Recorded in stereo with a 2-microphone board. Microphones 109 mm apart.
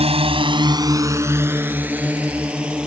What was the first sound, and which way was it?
A drone, 65° right (ahead or behind).